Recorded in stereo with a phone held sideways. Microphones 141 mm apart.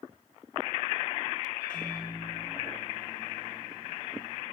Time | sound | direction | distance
1.6 | a microwave | 35° left (ahead or behind) | 4.5 m